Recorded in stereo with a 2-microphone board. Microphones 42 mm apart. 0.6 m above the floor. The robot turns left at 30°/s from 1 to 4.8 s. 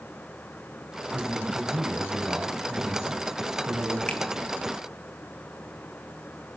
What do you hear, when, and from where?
1.1 s a man speaking: 20° right, 4 m; by 4.0 s 105° right, 4 m
4.1 s a finger snap: 25° left (ahead or behind), 1.0 m